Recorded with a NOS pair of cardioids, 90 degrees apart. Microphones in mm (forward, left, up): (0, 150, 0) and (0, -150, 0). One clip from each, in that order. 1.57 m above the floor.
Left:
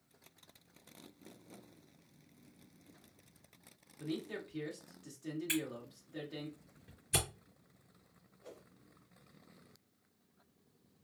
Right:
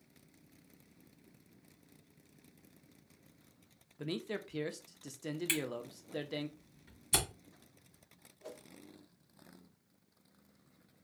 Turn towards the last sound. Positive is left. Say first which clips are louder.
# right 5 dB
turn(degrees=-65)